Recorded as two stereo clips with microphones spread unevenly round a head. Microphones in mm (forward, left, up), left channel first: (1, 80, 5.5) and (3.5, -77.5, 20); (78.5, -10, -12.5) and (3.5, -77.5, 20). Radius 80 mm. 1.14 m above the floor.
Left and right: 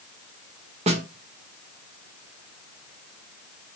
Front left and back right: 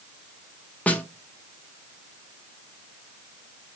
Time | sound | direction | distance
0.9 | a snare drum | 40° right | 0.7 m